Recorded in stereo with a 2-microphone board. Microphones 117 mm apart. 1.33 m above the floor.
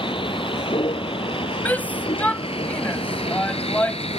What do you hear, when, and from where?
0.0 s a vehicle: 50° left (ahead or behind); by 4.2 s 60° left (ahead or behind)
1.6 s a shout: 15° left (ahead or behind)